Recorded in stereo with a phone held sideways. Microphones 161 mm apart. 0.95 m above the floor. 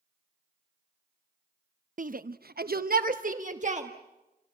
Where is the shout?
55° right (ahead or behind), 0.7 m; by 3.9 s 45° right (ahead or behind), 1.5 m.